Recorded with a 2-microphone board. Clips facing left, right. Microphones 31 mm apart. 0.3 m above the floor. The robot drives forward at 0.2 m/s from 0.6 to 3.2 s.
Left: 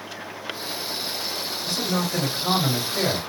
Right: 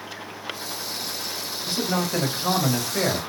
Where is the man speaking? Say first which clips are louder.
Right 1 dB; 30° right (ahead or behind), 1.8 m.